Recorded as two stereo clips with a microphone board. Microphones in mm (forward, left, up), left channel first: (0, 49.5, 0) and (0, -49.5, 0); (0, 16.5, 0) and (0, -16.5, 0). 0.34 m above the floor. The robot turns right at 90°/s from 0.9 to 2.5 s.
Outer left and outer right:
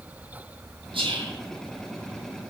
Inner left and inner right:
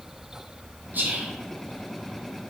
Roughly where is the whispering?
Right.